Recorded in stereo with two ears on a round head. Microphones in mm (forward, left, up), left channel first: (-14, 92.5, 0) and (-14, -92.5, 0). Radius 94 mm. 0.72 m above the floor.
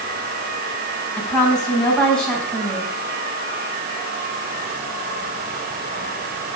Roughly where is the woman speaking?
Centre.